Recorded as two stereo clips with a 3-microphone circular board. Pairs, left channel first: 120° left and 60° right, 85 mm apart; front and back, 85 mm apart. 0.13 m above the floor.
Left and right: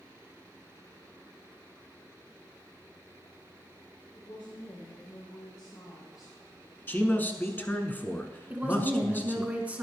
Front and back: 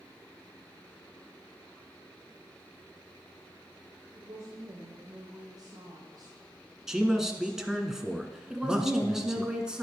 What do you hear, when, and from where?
4.2 s a woman speaking: 135° left, 4 m; by 7.9 s straight behind, 2.5 m
6.9 s a man speaking: 105° left, 1.1 m
8.5 s a woman speaking: 110° right, 1.6 m